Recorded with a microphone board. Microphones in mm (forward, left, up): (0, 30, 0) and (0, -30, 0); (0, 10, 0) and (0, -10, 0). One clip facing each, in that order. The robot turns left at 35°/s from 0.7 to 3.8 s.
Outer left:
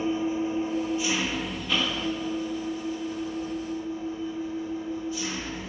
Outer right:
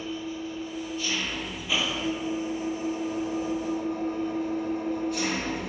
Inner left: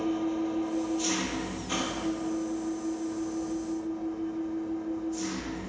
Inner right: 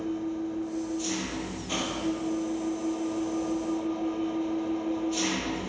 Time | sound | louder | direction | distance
0.0 | an engine running | outer left 7 dB, inner left 2 dB | 30° left | 1.0 m